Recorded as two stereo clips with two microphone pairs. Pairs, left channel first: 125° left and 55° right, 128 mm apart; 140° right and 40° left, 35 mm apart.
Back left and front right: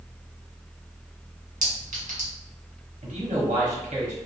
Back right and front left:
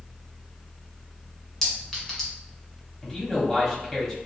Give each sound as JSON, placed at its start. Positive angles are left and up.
{"t": 1.6, "sound": "a clink", "azimuth_deg": -55, "distance_m": 1.6}
{"t": 3.0, "sound": "a man speaking", "azimuth_deg": -55, "distance_m": 1.4}